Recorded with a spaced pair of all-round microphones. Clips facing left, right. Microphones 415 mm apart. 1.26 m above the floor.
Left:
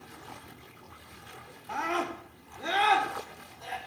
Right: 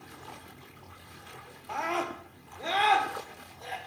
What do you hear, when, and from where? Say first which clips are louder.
1.7 s a scream: left 1 dB; 30° left (ahead or behind), 2.5 m; by 3.8 s 25° left (ahead or behind), 5 m